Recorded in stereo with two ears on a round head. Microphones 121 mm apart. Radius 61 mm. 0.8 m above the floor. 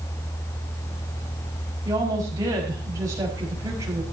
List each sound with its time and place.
1.9 s a woman speaking: 25° right (ahead or behind), 5.5 m